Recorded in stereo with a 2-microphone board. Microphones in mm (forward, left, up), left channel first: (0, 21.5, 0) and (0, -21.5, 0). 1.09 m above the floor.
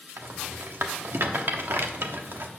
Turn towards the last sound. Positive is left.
turn(degrees=-60)  # may be behind; listen again after turning